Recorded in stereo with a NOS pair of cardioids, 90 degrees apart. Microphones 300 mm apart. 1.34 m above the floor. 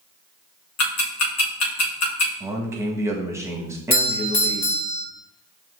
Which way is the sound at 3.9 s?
50° left.